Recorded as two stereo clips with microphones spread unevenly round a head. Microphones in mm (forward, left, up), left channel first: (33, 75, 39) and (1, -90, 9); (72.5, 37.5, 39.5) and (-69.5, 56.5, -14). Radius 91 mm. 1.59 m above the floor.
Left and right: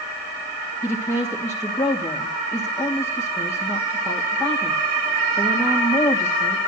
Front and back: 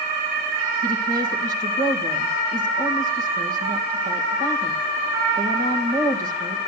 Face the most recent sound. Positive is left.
turn(degrees=155)